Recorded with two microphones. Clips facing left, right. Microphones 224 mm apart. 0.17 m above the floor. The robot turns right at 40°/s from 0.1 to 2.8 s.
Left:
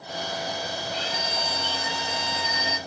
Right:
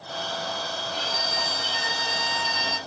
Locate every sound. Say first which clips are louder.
0.9 s a violin: left 1 dB; 135° right, 2 m; by 2.8 s 60° right, 2 m